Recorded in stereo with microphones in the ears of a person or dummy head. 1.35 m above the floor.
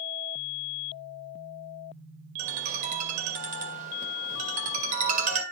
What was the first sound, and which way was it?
A ringtone, 45° right (ahead or behind).